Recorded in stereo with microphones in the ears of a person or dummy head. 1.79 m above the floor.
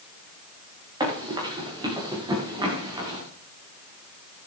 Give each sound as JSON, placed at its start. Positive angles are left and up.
{"t": 1.0, "sound": "running footsteps", "side_deg": -15, "distance_m": 9.5}